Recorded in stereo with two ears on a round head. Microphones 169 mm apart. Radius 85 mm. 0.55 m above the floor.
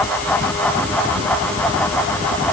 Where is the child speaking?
No child speaking in this recording.